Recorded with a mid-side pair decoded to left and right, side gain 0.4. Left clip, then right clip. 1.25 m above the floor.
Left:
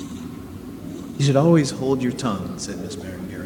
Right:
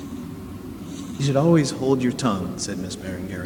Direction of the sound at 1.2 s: 40° left.